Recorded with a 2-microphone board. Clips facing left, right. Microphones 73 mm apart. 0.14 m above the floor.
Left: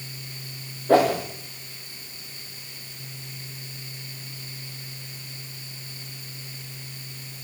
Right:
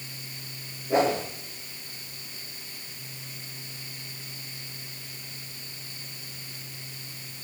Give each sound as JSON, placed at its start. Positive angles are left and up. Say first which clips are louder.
{"t": 0.9, "sound": "a whoosh", "louder": "left 5 dB", "side_deg": 80, "distance_m": 8.5}